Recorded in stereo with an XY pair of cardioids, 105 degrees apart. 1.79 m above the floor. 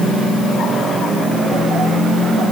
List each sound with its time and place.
Only background noise.